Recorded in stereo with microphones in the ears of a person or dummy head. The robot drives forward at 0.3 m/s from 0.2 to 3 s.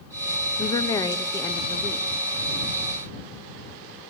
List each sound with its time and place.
0.6 s a woman speaking: 20° left (ahead or behind), 0.6 m; by 2.1 s 10° left (ahead or behind), 1.0 m